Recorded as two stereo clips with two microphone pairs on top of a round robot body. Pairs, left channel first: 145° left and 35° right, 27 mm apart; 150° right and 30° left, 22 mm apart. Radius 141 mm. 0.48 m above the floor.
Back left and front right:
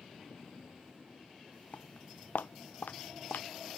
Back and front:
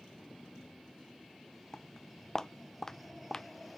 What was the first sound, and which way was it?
Footsteps, 145° left.